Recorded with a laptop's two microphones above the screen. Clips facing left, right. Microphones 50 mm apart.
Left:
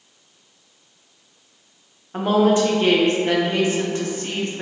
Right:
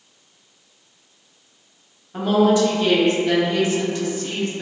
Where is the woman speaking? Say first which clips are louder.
Even; 35° left (ahead or behind), 0.7 m.